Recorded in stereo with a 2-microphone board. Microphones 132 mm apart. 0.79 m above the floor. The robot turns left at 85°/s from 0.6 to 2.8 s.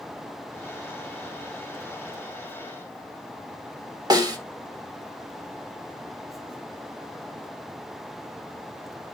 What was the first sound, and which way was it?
A snare drum, 30° right (ahead or behind).